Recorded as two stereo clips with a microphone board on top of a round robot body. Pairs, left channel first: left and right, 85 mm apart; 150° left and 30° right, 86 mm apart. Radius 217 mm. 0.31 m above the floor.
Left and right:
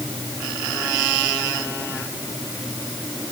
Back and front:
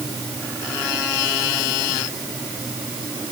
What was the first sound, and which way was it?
Only background noise.